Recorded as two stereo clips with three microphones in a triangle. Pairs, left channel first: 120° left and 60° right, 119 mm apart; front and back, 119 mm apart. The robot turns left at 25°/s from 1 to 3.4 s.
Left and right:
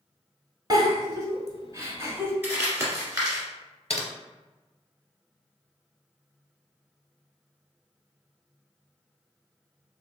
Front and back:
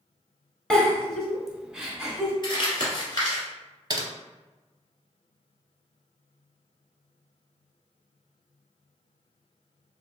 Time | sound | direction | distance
0.7 | a giggle | 75° right | 0.8 m
2.4 | crumpling | straight ahead | 1.4 m
3.9 | typing on a keyboard | 135° left | 0.7 m